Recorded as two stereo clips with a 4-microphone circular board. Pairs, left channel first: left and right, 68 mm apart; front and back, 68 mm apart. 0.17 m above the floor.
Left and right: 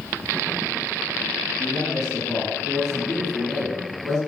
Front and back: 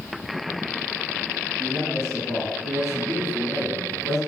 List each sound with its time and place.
1.6 s a man speaking: 15° left, 1.9 m